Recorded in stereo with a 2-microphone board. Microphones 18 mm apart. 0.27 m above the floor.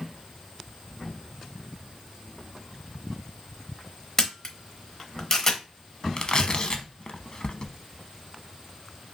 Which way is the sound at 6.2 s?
45° left (ahead or behind).